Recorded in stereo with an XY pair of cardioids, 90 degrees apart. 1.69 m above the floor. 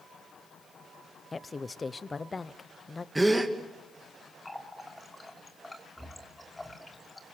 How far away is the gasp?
About 2.5 m.